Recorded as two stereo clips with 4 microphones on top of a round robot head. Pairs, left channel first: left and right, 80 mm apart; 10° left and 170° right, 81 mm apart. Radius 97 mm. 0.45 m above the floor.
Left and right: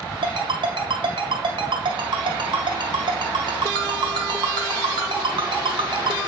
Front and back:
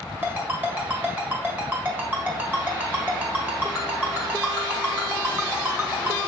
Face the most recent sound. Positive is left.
turn(degrees=-105)